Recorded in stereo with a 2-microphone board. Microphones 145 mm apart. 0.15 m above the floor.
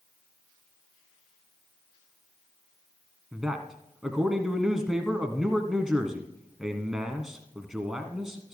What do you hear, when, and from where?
3.3 s a man speaking: 5° right (ahead or behind), 1.2 m